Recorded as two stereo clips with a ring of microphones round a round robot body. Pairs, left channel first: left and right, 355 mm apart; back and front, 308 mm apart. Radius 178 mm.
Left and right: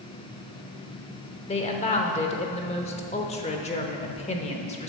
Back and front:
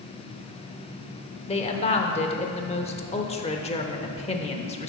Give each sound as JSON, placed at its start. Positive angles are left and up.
{"t": 1.5, "sound": "a woman speaking", "azimuth_deg": 140, "distance_m": 0.8}